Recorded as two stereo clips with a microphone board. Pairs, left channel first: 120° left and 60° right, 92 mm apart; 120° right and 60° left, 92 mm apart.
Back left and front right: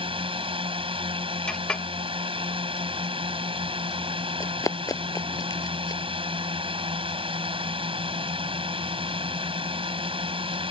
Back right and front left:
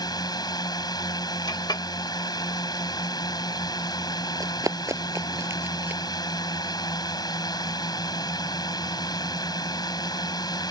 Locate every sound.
0.0 s a drone: 75° right
1.5 s a clink: 160° right
4.4 s running footsteps: 85° left; by 6.0 s 120° left